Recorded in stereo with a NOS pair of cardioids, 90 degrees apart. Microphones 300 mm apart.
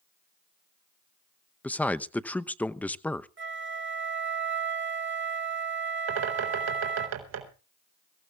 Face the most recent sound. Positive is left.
turn(degrees=-60)